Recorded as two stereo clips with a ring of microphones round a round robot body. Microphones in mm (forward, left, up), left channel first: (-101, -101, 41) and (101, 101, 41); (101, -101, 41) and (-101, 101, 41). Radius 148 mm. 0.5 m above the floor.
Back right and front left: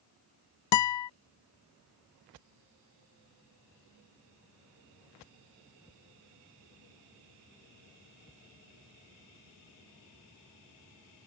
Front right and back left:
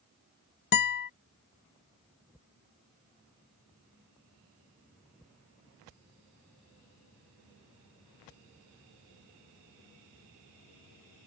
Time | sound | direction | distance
0.7 | a guitar | 105° right | ?